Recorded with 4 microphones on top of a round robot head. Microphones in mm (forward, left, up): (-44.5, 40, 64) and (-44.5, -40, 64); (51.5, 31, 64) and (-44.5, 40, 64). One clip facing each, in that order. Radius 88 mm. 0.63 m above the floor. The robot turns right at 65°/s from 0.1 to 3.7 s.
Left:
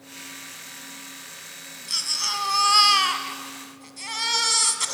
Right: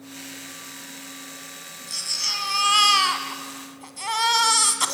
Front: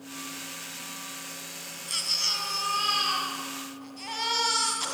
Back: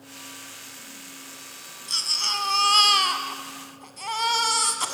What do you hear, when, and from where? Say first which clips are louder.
1.9 s a baby crying: left 4 dB, back 6 dB; 110° left, 2.5 m; by 4.9 s 130° right, 2.5 m